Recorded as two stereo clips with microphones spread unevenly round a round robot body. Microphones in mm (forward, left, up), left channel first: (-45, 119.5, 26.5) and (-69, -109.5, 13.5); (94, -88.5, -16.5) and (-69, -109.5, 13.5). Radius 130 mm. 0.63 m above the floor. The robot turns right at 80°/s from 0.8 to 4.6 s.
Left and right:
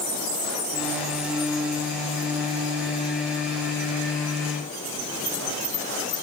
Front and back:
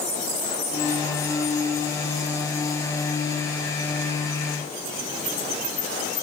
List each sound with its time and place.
Only background noise.